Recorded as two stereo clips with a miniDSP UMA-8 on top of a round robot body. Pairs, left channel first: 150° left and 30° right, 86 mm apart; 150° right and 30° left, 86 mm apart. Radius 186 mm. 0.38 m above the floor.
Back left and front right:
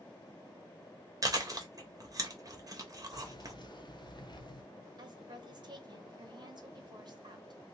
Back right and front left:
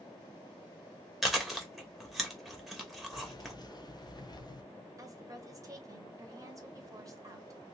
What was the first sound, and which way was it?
Chewing, 55° right.